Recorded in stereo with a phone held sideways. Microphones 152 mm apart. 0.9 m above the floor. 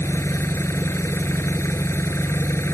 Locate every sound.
0.0 s an engine running: 20° left (ahead or behind)